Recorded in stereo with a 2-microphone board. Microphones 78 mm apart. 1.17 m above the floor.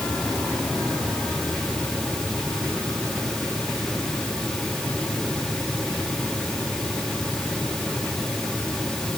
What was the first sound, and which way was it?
Only background noise.